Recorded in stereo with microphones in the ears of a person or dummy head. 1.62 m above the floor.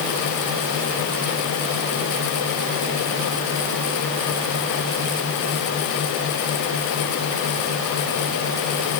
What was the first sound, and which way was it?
Only background noise.